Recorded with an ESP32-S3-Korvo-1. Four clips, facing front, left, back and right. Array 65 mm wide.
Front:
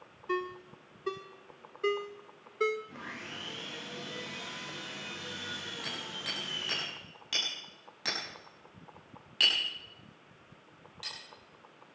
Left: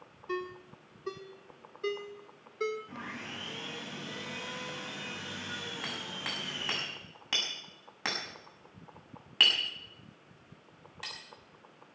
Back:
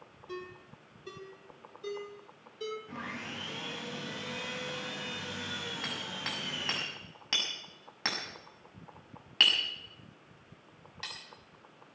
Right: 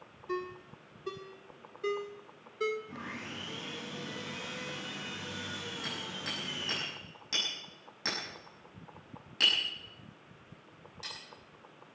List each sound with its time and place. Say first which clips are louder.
0.3 s a ringtone: even, front 9 dB; 5° left, 1.3 m
2.9 s sawing: even, back 3 dB; 150° left, 7.5 m
5.8 s hammering: left 1 dB, back 2 dB; 130° left, 6.5 m